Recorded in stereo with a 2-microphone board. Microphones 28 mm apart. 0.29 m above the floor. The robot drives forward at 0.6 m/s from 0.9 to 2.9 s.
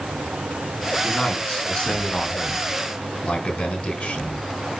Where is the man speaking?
40° left (ahead or behind), 3.5 m; by 4.5 s 50° left (ahead or behind), 3 m.